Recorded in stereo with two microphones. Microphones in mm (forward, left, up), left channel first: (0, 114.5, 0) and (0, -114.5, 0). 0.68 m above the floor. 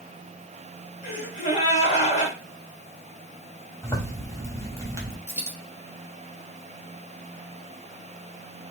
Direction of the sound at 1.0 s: 35° left (ahead or behind).